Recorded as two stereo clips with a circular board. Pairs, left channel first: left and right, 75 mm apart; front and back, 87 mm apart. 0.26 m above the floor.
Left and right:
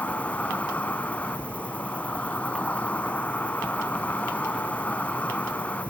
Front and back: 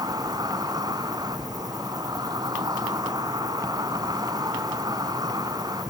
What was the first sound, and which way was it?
An insect, 155° left.